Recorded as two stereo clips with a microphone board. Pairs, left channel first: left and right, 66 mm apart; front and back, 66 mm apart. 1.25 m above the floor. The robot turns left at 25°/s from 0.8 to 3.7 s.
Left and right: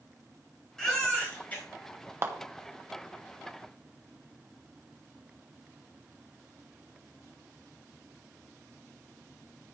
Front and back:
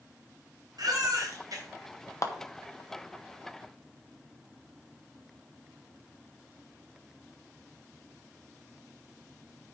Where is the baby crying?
170° left, 4 m; by 1.6 s 150° left, 4 m.